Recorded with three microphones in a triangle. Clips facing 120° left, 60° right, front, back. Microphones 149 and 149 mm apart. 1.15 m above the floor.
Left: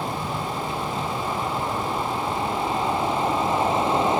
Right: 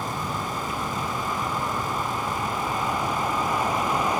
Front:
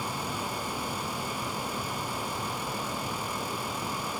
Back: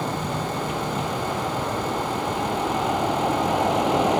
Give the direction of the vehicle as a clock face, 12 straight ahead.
6 o'clock.